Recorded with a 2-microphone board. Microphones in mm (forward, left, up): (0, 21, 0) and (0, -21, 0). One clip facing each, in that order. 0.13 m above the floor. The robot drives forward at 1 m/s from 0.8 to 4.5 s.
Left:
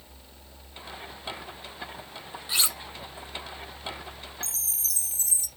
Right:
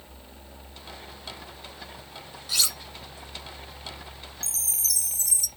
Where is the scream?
No scream in this recording.